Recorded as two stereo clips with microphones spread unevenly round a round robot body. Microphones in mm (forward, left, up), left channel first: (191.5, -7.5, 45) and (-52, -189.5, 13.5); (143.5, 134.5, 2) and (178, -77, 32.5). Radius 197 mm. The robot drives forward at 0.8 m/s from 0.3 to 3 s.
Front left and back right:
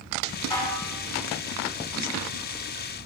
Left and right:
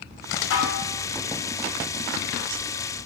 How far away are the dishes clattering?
About 1.9 m.